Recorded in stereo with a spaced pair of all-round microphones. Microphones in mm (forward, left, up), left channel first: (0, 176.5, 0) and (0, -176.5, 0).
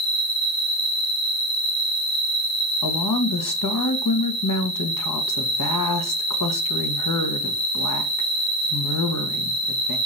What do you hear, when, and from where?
0.0 s an insect: 80° left, 3 m
2.8 s a woman speaking: 65° left (ahead or behind), 1.3 m